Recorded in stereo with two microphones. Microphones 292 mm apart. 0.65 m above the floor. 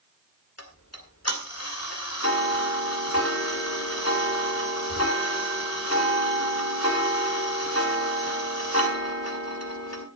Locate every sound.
0.6 s ticking: 55° left (ahead or behind), 2 m